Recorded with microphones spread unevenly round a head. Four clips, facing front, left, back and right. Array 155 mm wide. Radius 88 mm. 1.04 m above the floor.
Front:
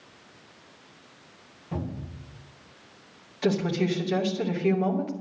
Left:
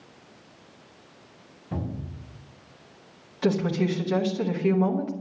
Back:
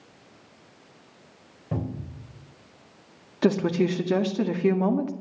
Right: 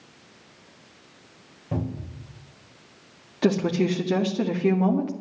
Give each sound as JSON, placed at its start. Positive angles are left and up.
{"t": 1.7, "sound": "a cupboard door", "azimuth_deg": -170, "distance_m": 4.5}
{"t": 3.4, "sound": "a woman speaking", "azimuth_deg": -160, "distance_m": 2.0}